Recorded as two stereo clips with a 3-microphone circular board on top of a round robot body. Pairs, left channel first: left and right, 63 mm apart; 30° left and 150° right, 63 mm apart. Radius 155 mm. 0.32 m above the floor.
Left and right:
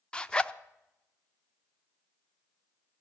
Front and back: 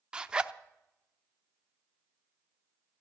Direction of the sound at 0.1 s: 150° left.